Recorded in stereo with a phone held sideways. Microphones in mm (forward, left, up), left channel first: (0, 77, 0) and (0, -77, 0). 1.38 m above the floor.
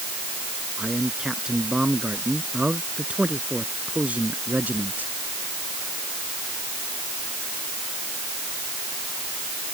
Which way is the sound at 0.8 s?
5° right (ahead or behind).